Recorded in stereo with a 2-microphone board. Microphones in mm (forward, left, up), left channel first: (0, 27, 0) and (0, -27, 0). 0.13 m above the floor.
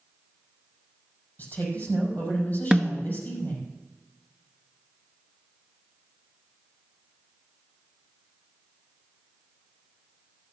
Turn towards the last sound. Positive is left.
turn(degrees=-15)  # may be behind; listen again after turning